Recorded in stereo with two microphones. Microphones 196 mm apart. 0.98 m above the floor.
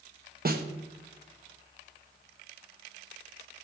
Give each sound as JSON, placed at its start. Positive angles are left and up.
{"t": 0.5, "sound": "a snare drum", "side_deg": -50, "distance_m": 1.2}